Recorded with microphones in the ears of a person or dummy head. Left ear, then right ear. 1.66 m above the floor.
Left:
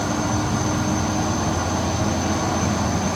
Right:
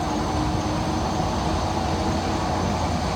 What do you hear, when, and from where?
0.0 s an insect: 75° left (ahead or behind), 2 m